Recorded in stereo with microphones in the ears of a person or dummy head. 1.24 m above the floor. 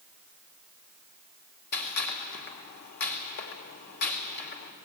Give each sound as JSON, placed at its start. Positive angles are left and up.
{"t": 1.7, "sound": "a gunshot", "side_deg": 55, "distance_m": 2.5}